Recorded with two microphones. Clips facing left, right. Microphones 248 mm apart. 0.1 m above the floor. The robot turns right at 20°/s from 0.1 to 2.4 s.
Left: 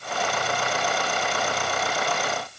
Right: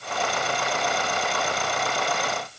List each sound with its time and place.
Only background noise.